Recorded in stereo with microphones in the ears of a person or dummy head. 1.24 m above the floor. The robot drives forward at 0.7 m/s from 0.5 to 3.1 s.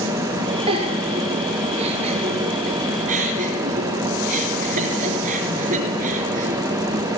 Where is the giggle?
30° right (ahead or behind), 5 m; by 6.6 s 45° right (ahead or behind), 3.5 m.